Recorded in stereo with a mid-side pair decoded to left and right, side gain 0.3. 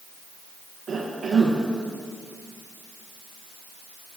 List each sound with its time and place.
0.9 s a cough: 70° right, 1.6 m